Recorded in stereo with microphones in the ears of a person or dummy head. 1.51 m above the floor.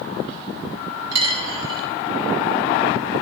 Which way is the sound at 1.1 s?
20° right (ahead or behind).